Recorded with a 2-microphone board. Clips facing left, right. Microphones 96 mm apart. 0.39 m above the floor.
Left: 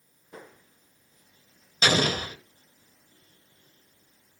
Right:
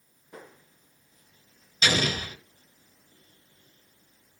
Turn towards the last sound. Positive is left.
turn(degrees=40)  # may be behind; listen again after turning